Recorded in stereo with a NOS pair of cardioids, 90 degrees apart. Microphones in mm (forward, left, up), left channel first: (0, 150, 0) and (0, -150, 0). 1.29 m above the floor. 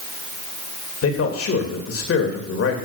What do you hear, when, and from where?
1.0 s a man speaking: 50° left, 2.5 m